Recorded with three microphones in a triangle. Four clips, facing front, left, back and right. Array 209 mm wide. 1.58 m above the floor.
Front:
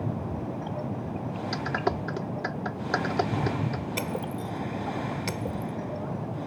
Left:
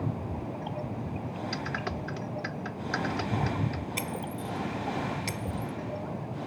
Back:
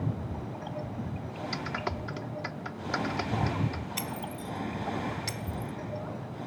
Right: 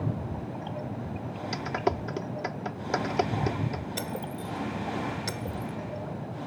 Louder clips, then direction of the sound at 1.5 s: Right 10 dB, front 7 dB; 55° right.